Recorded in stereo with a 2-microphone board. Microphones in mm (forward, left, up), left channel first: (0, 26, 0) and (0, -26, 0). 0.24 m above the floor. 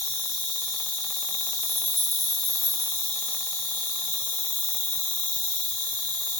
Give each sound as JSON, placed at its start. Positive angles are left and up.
{"t": 0.0, "sound": "an insect", "side_deg": 40, "distance_m": 1.0}